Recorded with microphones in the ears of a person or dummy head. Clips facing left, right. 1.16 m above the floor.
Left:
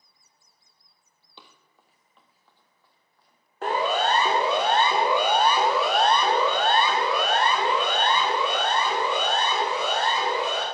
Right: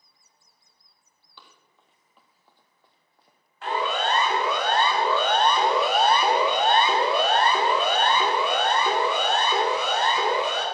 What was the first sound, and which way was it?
Running footsteps, 20° left (ahead or behind).